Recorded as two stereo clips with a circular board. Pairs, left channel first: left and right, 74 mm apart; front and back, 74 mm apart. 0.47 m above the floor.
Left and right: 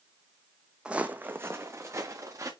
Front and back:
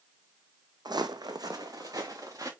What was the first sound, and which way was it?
Footsteps, 165° right.